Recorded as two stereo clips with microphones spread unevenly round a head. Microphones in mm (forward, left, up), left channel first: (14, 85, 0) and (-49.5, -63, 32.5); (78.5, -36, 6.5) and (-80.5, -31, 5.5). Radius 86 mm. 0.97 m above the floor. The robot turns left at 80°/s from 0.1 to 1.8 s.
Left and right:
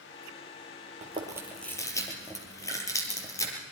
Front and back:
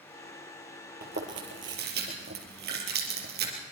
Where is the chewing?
155° right, 4.5 m; by 3.5 s 140° left, 4.5 m.